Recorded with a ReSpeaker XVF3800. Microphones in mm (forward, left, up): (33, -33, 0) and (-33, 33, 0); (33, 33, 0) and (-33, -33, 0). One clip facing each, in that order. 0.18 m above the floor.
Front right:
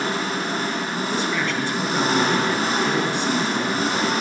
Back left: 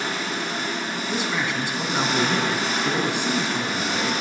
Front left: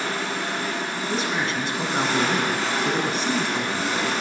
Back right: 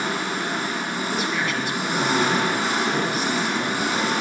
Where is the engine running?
70° right, 1.3 m.